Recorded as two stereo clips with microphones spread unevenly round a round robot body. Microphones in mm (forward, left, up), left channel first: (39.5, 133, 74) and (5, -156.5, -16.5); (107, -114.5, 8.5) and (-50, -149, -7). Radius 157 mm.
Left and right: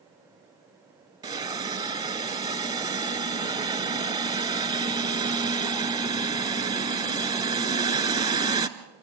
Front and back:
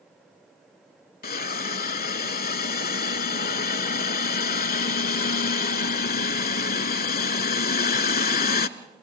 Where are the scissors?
I don't hear scissors.